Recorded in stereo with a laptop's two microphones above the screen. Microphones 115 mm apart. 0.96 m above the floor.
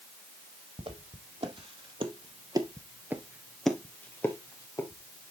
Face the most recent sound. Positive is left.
turn(degrees=35)  # may be behind; listen again after turning